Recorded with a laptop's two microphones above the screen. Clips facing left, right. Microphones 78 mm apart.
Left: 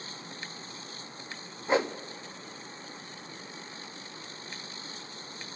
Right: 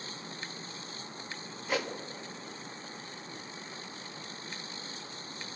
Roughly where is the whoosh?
Left.